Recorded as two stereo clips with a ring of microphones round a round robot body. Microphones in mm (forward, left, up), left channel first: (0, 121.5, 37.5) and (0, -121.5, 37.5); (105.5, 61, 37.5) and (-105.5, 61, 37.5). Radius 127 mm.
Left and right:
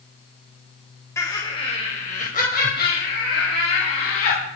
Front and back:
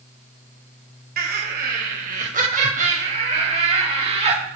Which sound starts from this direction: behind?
Laughter, at 1.2 s.